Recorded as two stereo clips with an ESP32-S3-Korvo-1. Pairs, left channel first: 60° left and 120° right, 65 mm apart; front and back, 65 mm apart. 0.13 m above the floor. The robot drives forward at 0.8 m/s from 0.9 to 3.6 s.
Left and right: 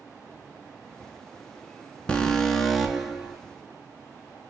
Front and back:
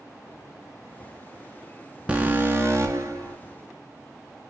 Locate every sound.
2.1 s an alarm: 125° left, 1.1 m; by 3.4 s 160° left, 1.7 m